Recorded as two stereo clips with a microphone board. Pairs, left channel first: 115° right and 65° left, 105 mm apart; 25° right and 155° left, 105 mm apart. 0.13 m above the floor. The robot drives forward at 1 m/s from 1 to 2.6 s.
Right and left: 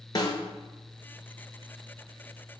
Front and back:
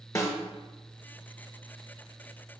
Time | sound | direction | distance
0.1 | a snare drum | 75° right | 1.3 m